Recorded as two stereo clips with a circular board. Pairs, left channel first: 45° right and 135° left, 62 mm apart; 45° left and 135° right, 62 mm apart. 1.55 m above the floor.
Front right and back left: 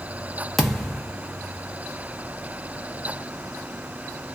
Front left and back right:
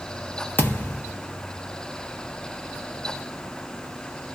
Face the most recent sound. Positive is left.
turn(degrees=40)